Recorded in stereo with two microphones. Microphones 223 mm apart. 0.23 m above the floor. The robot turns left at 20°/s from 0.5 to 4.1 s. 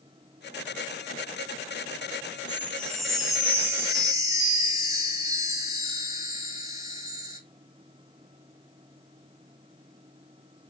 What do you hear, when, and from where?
2.5 s a chime: 15° left, 2.5 m; by 7.4 s 20° right, 2.5 m